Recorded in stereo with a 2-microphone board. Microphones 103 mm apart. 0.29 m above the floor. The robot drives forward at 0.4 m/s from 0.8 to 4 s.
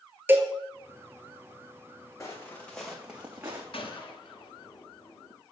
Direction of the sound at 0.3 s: 20° right (ahead or behind).